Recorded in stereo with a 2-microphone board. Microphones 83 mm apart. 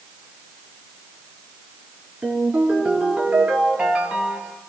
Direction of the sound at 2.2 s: 15° right (ahead or behind).